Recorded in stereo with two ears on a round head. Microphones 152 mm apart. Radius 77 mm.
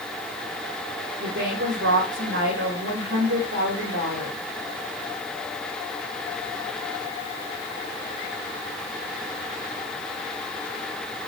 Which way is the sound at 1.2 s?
75° right (ahead or behind).